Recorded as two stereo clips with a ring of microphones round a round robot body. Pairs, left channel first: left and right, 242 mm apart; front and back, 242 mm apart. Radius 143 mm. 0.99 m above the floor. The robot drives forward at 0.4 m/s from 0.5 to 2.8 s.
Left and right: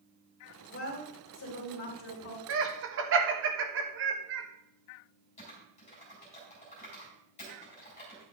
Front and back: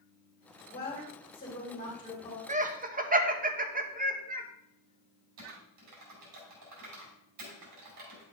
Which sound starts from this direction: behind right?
Laughter, at 2.5 s.